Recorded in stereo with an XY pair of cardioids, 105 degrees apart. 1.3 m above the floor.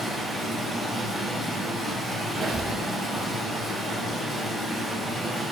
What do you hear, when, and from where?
0.0 s running water: 10° left, 1.1 m
2.3 s a squeak: 40° right, 0.5 m